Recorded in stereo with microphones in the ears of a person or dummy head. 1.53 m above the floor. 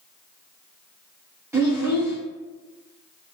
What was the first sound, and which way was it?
A child speaking, 20° right (ahead or behind).